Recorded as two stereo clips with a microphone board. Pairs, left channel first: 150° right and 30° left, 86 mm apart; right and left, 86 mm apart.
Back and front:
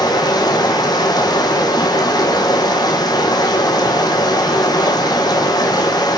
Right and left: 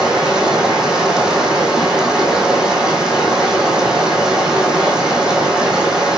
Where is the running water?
170° left, 2 m.